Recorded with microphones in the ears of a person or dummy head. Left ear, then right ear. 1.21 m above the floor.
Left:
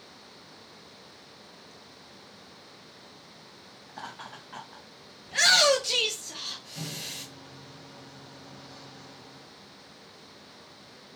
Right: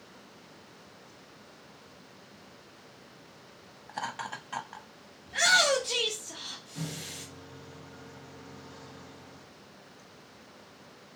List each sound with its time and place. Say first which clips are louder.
3.9 s laughter: right 6 dB; 65° right (ahead or behind), 0.7 m
5.3 s a shout: left 3 dB; 20° left (ahead or behind), 0.7 m
6.8 s a microwave: left 3 dB; 40° left (ahead or behind), 2 m